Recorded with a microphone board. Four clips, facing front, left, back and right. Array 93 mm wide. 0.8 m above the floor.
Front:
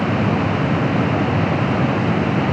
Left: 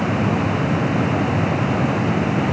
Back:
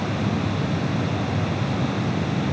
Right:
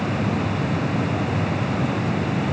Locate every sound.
Only background noise.